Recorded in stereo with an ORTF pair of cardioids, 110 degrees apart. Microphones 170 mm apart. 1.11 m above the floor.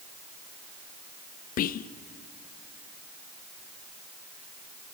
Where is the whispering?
55° left, 0.8 m.